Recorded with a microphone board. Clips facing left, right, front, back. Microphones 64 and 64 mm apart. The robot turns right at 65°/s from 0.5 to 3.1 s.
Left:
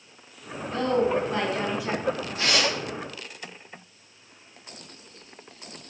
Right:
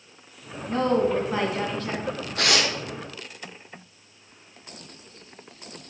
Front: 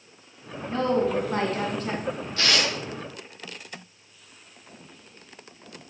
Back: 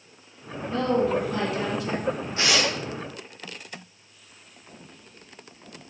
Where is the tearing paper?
110° right, 1.6 m; by 2.7 s 85° right, 1.6 m.